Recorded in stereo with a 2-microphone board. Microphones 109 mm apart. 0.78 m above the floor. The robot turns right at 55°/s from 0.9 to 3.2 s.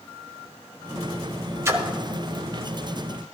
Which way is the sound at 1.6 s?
25° right (ahead or behind).